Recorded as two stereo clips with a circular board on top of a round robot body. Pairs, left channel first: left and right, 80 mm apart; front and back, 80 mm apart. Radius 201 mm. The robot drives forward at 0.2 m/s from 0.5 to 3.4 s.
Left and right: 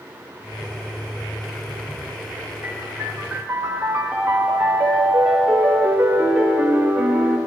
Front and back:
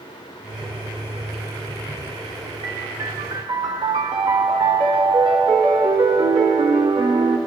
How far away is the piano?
About 0.7 m.